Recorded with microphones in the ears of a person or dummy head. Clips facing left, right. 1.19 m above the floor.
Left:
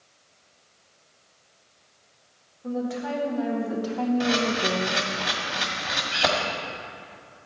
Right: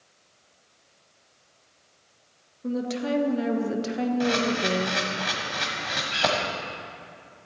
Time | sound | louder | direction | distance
2.6 | a woman speaking | right 1 dB | 45° right (ahead or behind) | 1.5 m
4.2 | a camera shutter | even | 5° left (ahead or behind) | 1.7 m